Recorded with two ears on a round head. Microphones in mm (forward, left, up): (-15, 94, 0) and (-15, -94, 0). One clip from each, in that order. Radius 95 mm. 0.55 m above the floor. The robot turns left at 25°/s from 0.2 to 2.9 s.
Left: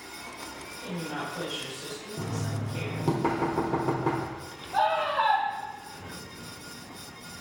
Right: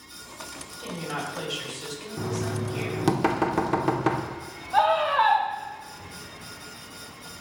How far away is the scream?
About 1.9 m.